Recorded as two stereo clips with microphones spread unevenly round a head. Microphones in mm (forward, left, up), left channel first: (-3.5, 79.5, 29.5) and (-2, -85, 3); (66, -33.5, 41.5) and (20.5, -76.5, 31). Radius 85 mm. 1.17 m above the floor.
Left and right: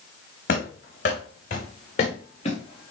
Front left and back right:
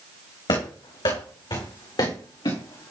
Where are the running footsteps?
55° left, 4 m; by 2.9 s 35° left, 4.5 m.